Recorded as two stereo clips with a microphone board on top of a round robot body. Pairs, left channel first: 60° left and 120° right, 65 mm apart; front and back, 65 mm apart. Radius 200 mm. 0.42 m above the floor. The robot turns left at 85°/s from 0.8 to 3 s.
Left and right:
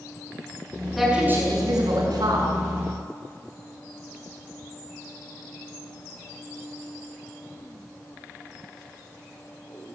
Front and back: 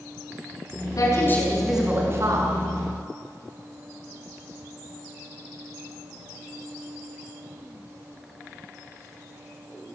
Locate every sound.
1.0 s a woman speaking: 30° right, 6 m; by 2.5 s 160° right, 6 m